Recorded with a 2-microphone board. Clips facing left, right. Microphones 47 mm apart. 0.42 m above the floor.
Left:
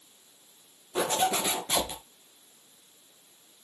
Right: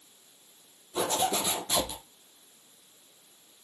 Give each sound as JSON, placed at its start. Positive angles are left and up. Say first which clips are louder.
{"t": 0.9, "sound": "a zipper", "louder": "left 2 dB", "side_deg": 35, "distance_m": 4.0}